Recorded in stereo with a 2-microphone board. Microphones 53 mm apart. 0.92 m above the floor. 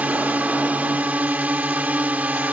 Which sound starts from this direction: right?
A drone, at 0.0 s.